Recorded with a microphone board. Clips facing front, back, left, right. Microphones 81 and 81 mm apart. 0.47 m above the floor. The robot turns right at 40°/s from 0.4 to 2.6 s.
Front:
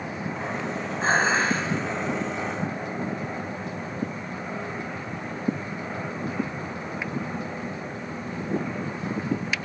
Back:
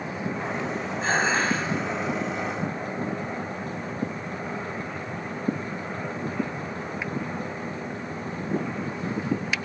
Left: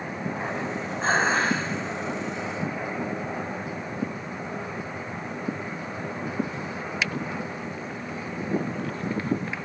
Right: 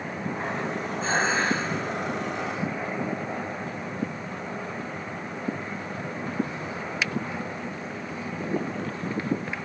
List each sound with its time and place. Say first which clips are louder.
1.0 s dishes clattering: front 2 dB, left 2 dB; 60° left, 2.5 m; by 1.6 s 85° left, 2.5 m